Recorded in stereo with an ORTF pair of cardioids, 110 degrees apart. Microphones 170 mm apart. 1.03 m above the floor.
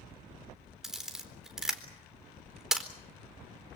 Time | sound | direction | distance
0.8 | a camera shutter | straight ahead | 4 m